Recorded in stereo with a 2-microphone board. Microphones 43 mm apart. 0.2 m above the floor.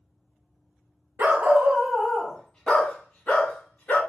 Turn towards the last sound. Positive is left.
turn(degrees=45)  # may be behind; listen again after turning